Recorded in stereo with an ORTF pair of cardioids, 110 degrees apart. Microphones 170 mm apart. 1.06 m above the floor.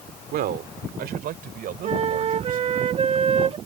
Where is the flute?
35° right.